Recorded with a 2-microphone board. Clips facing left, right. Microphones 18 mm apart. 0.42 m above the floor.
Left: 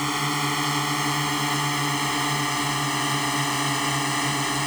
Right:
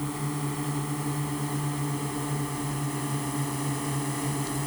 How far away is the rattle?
No rattle in this recording.